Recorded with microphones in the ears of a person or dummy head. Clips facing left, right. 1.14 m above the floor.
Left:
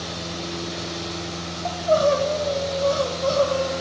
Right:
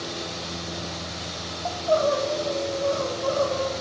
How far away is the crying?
About 2.5 m.